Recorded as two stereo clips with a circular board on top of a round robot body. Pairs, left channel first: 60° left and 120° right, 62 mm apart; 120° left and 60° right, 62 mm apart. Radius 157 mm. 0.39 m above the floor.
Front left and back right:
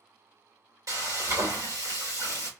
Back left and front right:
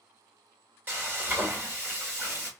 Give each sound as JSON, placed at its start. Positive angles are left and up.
{"t": 0.9, "sound": "frying", "azimuth_deg": -120, "distance_m": 2.5}